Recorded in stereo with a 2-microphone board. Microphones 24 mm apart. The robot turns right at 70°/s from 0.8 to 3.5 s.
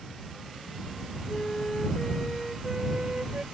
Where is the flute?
100° left; by 3.4 s 105° right.